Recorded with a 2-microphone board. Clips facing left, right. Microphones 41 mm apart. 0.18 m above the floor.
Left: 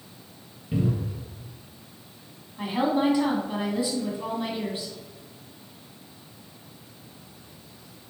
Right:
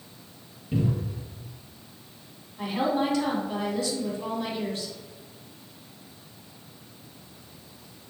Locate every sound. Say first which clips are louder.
0.7 s a cupboard door: left 1 dB; 15° left (ahead or behind), 2 m
2.6 s a woman speaking: left 2 dB; 20° left (ahead or behind), 1.1 m